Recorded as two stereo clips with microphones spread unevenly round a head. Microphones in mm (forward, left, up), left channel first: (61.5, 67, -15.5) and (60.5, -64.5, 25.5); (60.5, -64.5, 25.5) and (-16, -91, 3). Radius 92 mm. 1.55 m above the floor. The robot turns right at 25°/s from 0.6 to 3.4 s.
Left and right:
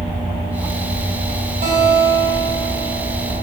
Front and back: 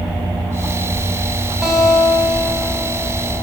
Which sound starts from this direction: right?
A guitar, at 1.6 s.